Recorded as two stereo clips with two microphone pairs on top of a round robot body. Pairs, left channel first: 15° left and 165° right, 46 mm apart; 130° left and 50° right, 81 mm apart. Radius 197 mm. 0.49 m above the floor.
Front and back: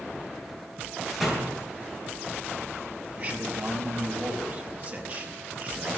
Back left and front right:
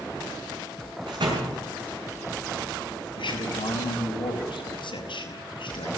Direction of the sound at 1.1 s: 85° right.